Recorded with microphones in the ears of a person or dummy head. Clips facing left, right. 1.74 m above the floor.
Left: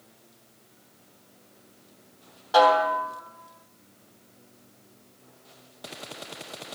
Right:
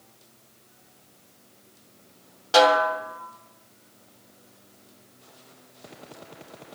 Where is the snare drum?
30° right (ahead or behind), 1.8 m.